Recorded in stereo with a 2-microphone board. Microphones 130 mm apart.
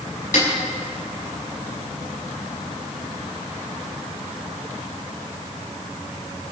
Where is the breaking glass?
No breaking glass in this recording.